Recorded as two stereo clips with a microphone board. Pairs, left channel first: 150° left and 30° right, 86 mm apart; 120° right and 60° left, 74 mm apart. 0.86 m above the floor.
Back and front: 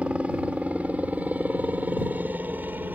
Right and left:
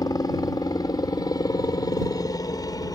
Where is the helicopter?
105° right; by 2.9 s 95° right.